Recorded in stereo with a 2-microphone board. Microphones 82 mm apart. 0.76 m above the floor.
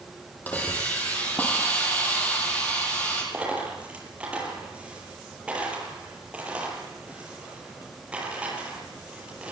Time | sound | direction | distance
0.5 | a hiss | 20° left (ahead or behind) | 7.5 m
3.3 | a dropped coin | 15° right (ahead or behind) | 9 m